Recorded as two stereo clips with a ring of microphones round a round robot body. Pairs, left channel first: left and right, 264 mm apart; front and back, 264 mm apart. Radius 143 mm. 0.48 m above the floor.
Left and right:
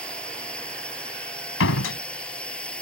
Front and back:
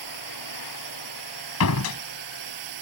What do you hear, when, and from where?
0.0 s a drone: 175° left
1.6 s a door slam: 40° left